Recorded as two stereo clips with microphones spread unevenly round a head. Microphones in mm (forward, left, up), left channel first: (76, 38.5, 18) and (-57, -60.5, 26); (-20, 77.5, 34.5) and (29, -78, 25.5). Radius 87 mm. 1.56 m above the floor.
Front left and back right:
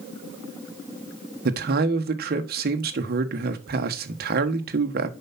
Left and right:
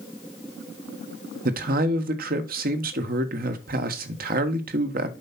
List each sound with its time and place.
1.4 s a man speaking: 110° right, 1.5 m